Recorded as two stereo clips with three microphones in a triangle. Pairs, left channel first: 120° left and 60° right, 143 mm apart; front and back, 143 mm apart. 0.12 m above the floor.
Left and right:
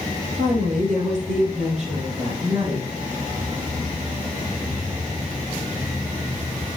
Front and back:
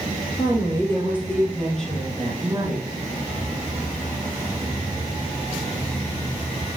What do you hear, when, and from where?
0.4 s a woman speaking: 65° right, 3 m; by 2.9 s 100° right, 3 m